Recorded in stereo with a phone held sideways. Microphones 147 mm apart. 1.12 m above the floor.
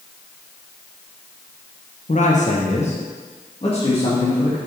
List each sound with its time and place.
2.1 s a man speaking: 55° left (ahead or behind), 1.1 m; by 4.6 s 35° left (ahead or behind), 2.5 m